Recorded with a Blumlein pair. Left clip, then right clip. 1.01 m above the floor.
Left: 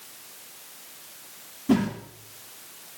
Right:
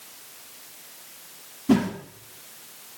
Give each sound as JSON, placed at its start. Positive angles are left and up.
{"t": 1.7, "sound": "a whoosh", "azimuth_deg": -5, "distance_m": 3.0}